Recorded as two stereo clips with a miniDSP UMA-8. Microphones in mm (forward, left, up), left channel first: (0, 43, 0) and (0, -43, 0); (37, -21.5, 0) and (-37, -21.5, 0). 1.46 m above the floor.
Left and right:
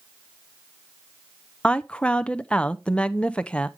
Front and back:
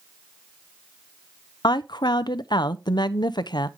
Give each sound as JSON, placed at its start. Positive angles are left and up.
{"t": 1.6, "sound": "a woman speaking", "azimuth_deg": 10, "distance_m": 0.6}